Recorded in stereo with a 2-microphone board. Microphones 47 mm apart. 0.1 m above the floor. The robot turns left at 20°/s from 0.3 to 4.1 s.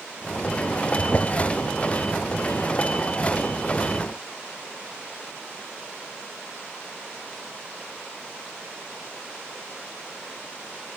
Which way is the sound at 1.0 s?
35° left (ahead or behind).